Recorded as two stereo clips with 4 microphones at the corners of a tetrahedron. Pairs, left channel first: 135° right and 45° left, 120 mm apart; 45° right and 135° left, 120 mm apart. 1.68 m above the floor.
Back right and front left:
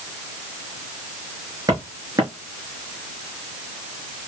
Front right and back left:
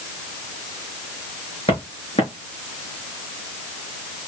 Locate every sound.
1.7 s footsteps: 10° right, 4 m